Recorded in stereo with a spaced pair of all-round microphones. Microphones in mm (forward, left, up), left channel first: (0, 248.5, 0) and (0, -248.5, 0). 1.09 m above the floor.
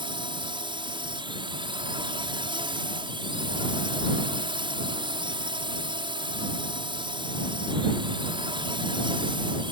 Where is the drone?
10° right (ahead or behind).